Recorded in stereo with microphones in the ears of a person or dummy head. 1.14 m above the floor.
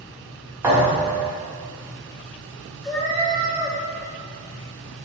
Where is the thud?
10° right (ahead or behind), 0.9 m.